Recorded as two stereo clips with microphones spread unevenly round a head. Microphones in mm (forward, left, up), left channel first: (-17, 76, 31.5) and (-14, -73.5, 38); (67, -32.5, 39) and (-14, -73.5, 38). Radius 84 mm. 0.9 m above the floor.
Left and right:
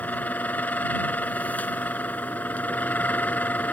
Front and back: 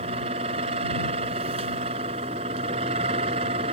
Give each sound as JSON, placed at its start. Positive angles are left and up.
{"t": 0.0, "sound": "a fan", "azimuth_deg": 170}